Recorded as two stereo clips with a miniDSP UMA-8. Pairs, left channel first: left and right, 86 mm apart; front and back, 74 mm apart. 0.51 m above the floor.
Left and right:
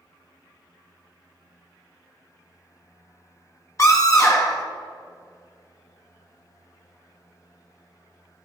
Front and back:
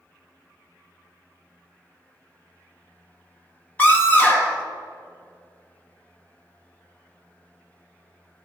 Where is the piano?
I don't hear a piano.